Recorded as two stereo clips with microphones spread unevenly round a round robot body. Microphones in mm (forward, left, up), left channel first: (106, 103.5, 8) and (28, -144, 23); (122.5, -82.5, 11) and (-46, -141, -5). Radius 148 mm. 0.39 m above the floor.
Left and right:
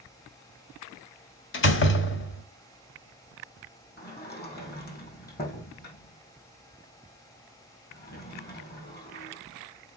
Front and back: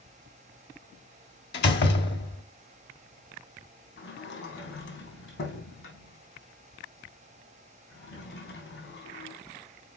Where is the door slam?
45° left, 1.4 m.